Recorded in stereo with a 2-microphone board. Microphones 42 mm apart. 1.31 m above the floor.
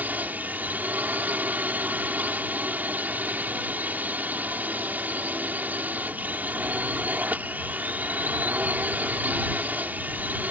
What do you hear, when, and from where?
0.0 s a drone: 45° right (ahead or behind)